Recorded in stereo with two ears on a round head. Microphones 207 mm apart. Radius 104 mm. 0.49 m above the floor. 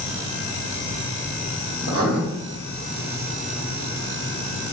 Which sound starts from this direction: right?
Writing, at 1.8 s.